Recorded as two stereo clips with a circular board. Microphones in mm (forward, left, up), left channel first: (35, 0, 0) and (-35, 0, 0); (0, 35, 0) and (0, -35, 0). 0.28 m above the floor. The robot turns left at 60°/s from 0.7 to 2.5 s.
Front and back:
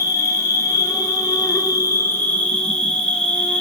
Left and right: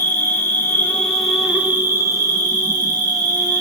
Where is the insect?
30° left, 1.0 m; by 3.6 s 75° right, 1.0 m.